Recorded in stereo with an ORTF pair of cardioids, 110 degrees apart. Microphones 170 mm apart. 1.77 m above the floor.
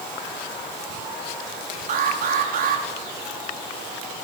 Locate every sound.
1.9 s an alarm: 55° right, 6 m